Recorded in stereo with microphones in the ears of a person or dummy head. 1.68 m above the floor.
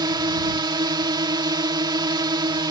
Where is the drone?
15° right (ahead or behind).